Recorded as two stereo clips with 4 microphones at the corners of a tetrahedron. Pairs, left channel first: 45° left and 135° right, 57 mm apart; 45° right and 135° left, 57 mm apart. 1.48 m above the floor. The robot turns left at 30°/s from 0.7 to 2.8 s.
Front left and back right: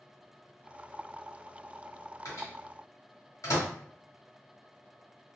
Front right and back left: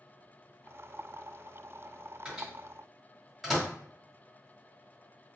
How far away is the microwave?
About 1.4 m.